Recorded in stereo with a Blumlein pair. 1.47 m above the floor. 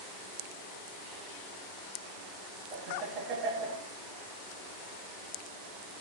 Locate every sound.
2.7 s laughter: 30° right, 2.5 m